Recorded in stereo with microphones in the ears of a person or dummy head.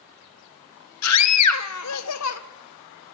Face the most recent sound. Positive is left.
turn(degrees=75)  # may be behind; listen again after turning